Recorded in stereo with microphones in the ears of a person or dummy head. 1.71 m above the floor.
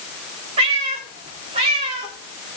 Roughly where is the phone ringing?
No phone ringing in this recording.